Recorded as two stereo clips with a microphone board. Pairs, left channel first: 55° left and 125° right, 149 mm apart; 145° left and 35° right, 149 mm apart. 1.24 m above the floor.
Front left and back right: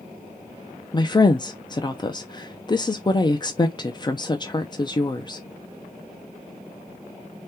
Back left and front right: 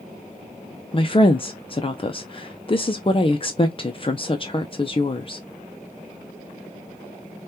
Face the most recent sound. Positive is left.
turn(degrees=105)